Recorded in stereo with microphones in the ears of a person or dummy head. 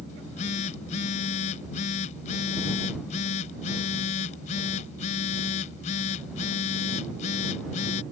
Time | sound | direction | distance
0.1 | a phone buzzing | 35° left (ahead or behind) | ?